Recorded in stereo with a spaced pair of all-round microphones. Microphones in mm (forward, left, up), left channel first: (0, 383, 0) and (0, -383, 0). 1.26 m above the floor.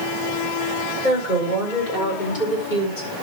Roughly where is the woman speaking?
Left.